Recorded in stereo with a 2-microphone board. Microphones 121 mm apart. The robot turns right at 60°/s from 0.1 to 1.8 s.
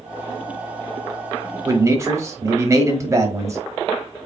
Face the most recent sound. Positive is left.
turn(degrees=-25)  # may be behind; listen again after turning